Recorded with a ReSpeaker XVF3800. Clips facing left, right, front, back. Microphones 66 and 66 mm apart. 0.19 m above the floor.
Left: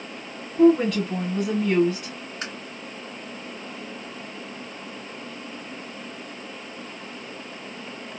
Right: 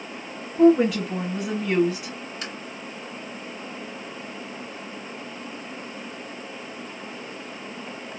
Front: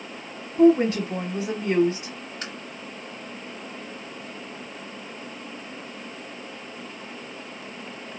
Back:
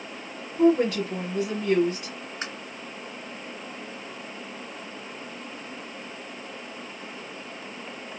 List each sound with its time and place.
0.6 s a woman speaking: 15° right, 1.1 m
2.4 s tapping: 125° left, 1.9 m